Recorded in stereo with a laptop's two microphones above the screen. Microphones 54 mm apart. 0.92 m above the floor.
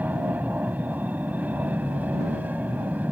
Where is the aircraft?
30° right (ahead or behind).